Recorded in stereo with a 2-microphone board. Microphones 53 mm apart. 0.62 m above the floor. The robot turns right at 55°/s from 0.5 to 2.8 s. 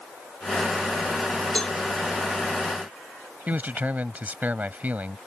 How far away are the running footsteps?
No running footsteps in this recording.